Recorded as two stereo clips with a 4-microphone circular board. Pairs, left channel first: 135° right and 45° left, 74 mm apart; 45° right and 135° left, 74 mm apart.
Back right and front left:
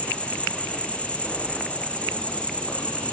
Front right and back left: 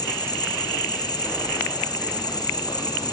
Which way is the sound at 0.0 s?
60° right.